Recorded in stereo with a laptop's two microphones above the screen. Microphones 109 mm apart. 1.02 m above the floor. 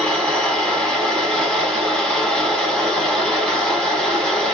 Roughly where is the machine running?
Centre.